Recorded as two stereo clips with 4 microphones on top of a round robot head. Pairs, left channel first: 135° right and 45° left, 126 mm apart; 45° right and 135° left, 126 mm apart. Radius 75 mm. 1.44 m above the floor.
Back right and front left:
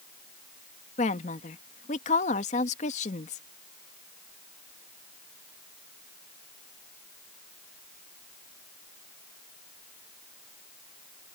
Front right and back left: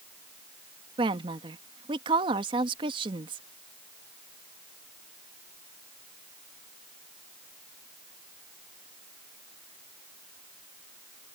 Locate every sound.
1.0 s a woman speaking: 170° right